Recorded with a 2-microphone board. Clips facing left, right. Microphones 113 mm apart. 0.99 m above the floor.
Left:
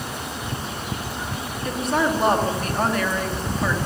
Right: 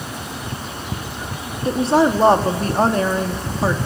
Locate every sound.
1.6 s a woman speaking: 30° right (ahead or behind), 2 m